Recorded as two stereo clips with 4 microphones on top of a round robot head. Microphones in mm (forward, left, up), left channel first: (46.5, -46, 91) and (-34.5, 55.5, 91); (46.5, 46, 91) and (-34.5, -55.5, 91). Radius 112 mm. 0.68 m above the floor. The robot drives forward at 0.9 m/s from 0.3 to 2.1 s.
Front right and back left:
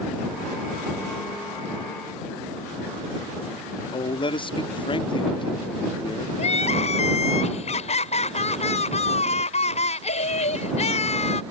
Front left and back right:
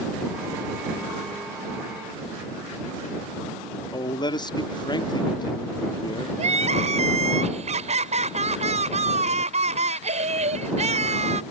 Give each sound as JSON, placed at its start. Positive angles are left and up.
{"t": 3.9, "sound": "a man speaking", "azimuth_deg": -5}
{"t": 6.4, "sound": "crying", "azimuth_deg": -90}